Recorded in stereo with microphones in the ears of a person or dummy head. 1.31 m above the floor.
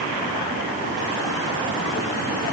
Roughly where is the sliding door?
I don't hear a sliding door.